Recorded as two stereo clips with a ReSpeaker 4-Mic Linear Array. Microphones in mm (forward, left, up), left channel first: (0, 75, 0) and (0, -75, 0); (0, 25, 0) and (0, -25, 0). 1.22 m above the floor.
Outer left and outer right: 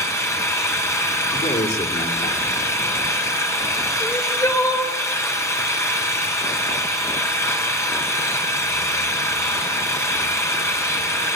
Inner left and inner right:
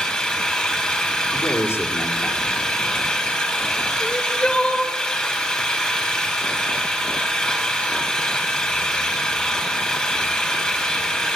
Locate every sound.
0.0 s an engine running: 20° left (ahead or behind), 4 m
1.3 s a man speaking: 80° left, 4 m
4.0 s crying: 20° left (ahead or behind), 2.5 m